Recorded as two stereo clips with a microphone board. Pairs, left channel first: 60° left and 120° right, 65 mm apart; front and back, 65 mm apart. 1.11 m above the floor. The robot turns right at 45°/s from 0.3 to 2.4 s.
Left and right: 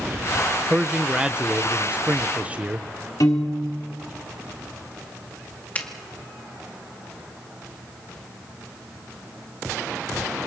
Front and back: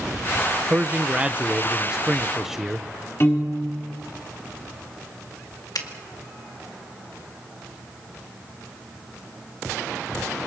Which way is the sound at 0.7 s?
175° left.